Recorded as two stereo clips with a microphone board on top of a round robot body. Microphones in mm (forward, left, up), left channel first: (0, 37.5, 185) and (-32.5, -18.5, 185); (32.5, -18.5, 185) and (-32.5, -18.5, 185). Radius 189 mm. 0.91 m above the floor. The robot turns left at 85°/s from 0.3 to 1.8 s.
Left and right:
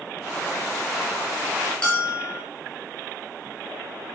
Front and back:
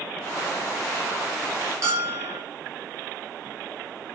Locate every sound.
1.8 s a bell: 130° left, 2 m